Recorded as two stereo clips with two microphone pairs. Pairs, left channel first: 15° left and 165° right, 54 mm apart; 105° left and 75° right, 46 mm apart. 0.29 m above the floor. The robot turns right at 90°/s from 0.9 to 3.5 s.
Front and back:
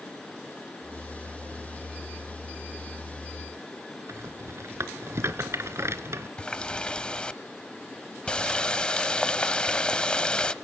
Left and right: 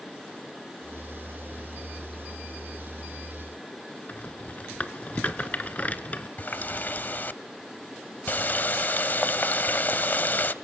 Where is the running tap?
85° left, 0.7 m.